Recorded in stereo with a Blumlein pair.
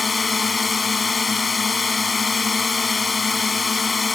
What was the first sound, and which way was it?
A drone, 15° left.